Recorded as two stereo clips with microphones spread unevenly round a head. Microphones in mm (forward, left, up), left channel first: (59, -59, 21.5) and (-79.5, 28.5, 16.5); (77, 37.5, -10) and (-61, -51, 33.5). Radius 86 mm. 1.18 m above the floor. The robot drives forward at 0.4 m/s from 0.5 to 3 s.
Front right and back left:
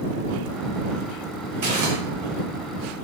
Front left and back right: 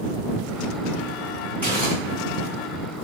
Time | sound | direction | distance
1.6 | crumpling | 120° left | 1.5 m